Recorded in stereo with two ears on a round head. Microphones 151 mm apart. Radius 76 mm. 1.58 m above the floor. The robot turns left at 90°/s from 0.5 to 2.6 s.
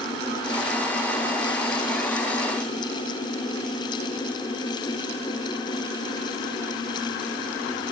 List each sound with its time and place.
Only background noise.